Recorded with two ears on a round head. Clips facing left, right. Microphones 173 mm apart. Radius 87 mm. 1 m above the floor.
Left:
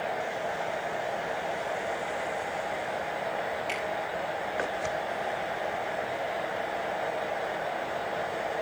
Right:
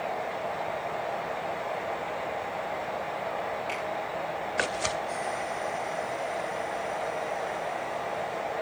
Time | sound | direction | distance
3.7 | a finger snap | 15° left (ahead or behind) | 7.5 m